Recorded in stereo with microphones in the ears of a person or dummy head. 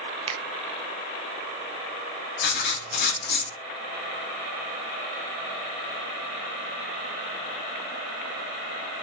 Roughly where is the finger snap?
Right.